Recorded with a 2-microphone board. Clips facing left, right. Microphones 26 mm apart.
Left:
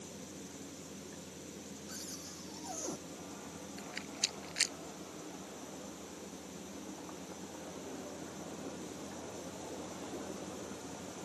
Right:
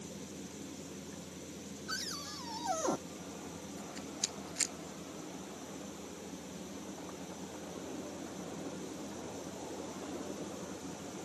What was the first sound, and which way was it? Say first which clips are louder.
A cupboard door: right 9 dB; 65° right (ahead or behind).